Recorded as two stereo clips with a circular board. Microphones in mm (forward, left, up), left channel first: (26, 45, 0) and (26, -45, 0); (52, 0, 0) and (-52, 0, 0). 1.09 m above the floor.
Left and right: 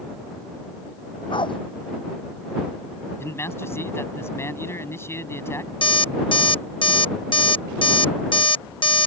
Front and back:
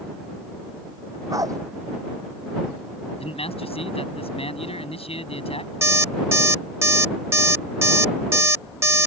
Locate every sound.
1.3 s a dog barking: 120° left
3.2 s a man speaking: 25° left
5.8 s an alarm clock: 115° left